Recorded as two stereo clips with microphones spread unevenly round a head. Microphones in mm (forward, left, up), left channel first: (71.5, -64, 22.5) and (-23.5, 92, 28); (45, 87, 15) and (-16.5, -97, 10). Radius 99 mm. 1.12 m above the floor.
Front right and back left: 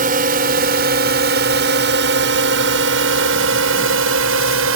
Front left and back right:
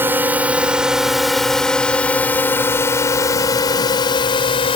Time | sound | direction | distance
0.0 | a drone | 170° left | ?